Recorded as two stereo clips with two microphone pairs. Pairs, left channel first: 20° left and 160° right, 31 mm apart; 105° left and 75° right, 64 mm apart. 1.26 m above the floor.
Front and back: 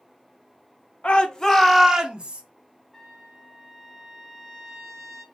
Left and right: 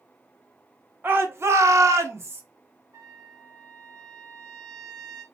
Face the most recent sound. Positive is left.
turn(degrees=-60)